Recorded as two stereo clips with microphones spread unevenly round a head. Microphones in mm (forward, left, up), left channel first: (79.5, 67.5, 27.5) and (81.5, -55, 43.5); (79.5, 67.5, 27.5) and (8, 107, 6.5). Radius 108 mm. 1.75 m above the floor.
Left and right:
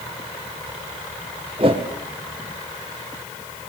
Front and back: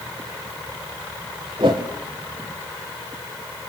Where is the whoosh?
150° right, 1.9 m.